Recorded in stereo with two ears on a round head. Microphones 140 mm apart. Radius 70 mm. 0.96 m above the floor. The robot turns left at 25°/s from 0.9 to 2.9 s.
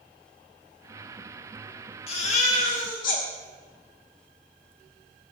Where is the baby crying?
40° left (ahead or behind), 1.5 m; by 3.2 s 65° left (ahead or behind), 1.5 m.